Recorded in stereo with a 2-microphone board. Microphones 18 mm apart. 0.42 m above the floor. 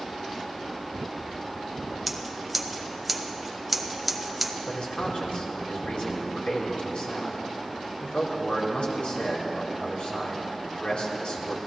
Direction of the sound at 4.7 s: 75° left (ahead or behind).